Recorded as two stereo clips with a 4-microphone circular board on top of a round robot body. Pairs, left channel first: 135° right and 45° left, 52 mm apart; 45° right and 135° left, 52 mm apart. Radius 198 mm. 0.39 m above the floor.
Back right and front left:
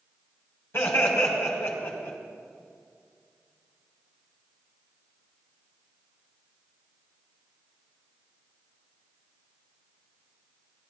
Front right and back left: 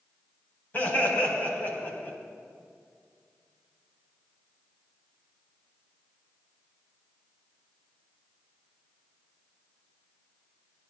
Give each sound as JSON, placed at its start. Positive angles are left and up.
{"t": 0.7, "sound": "laughter", "azimuth_deg": -100, "distance_m": 4.0}